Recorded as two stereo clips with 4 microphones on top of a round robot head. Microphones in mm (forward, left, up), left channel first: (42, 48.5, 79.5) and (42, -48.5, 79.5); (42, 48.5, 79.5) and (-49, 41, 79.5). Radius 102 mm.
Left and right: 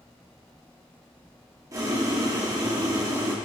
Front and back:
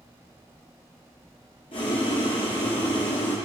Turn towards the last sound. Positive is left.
turn(degrees=-35)